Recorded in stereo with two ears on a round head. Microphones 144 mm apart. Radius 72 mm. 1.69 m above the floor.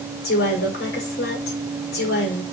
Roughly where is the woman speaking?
Left.